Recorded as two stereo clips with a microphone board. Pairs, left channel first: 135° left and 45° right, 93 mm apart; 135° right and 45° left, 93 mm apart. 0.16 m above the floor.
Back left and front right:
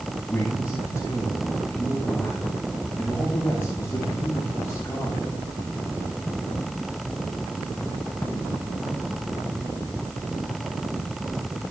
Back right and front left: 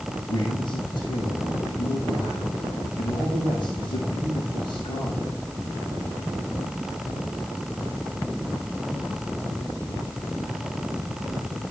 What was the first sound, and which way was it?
A man speaking, 150° right.